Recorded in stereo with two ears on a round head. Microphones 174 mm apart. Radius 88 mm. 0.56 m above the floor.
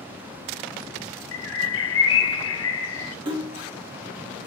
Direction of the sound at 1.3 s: 65° left (ahead or behind).